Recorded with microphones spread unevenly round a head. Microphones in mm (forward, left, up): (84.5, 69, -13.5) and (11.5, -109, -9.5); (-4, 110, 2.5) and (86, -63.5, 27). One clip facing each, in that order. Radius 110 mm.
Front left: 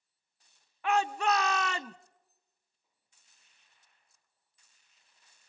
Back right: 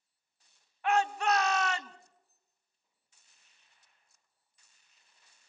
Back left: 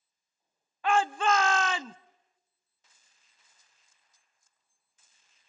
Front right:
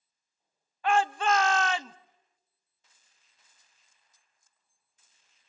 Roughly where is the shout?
Left.